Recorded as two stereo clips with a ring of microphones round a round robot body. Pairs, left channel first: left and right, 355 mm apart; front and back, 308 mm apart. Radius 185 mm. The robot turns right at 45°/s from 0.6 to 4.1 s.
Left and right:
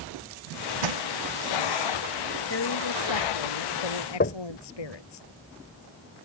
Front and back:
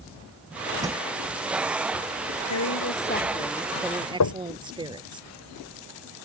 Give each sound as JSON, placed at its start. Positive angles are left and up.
{"t": 0.8, "sound": "crushing", "azimuth_deg": -100}
{"t": 2.5, "sound": "a woman speaking", "azimuth_deg": 35}
{"t": 4.2, "sound": "knocking", "azimuth_deg": 25}